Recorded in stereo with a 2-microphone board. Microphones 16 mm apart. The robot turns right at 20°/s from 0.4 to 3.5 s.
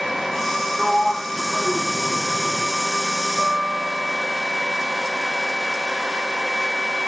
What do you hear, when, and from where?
0.8 s a sliding door: 25° left (ahead or behind), 2.5 m; by 2.7 s 5° right (ahead or behind), 2.5 m
3.4 s a guitar: 70° right (ahead or behind), 4.5 m